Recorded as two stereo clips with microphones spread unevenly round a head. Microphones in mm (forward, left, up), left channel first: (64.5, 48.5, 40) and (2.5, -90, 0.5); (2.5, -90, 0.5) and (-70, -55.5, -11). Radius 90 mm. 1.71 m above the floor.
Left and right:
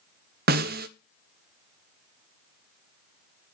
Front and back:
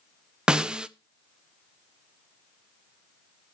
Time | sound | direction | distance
0.5 | a snare drum | 120° right | 0.5 m